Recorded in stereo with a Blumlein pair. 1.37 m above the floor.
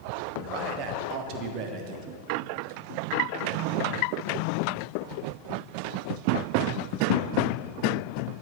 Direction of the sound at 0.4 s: 40° right.